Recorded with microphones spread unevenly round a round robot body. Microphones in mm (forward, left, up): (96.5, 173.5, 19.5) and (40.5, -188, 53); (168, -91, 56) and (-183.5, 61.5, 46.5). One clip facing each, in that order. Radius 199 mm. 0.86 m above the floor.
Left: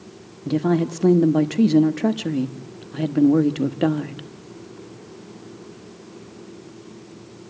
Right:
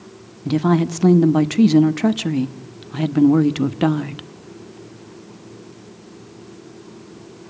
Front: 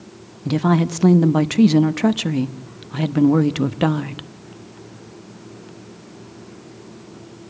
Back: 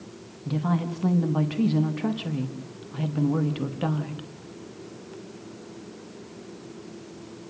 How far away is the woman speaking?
About 1.2 m.